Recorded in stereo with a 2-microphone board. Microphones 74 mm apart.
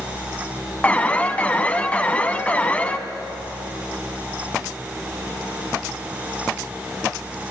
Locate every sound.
0.8 s an alarm: 20° left (ahead or behind), 1.4 m